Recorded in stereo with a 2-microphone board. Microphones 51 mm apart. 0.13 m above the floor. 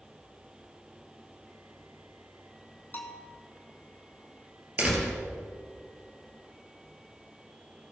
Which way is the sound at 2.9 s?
40° left (ahead or behind).